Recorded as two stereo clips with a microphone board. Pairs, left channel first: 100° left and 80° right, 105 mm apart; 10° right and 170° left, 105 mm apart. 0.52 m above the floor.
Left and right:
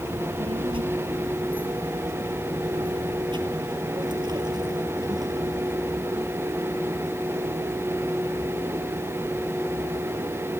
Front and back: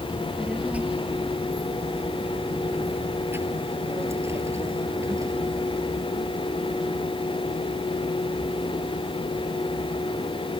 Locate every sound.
0.1 s a child speaking: 110° right; by 5.6 s 130° right